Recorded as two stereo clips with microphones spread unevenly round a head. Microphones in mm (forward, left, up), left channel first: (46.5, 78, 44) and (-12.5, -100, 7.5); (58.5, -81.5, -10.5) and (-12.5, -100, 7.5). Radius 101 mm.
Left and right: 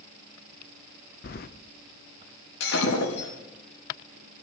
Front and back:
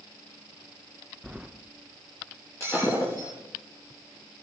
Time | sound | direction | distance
1.2 | keys jangling | 115° left | 0.7 m
2.6 | breaking glass | 95° left | 5.5 m